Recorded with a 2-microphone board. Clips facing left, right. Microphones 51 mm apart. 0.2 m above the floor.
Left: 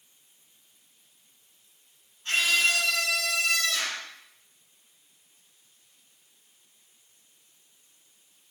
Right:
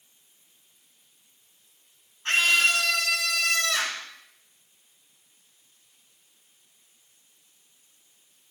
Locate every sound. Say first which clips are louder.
2.2 s a scream: right 3 dB; 60° right (ahead or behind), 2.5 m